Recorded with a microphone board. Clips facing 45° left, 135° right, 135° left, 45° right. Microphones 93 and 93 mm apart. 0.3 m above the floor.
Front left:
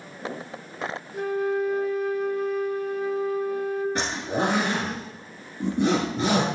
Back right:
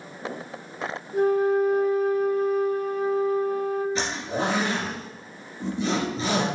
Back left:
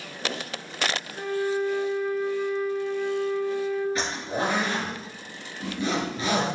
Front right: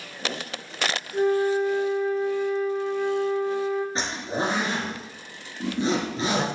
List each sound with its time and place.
1.1 s a flute: 95° right, 1.0 m
4.0 s a zipper: 15° left, 2.5 m